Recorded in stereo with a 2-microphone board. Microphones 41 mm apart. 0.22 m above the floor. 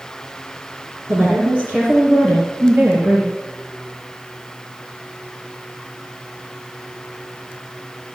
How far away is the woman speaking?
About 3.5 m.